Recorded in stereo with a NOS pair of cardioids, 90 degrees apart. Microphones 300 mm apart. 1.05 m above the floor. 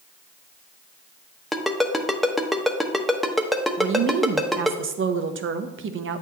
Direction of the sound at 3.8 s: 45° right.